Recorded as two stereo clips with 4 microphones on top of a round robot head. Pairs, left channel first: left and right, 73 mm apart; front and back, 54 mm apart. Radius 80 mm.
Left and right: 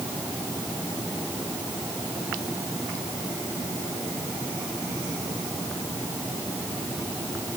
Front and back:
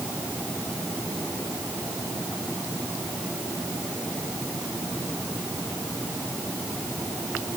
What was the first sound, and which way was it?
Only background noise.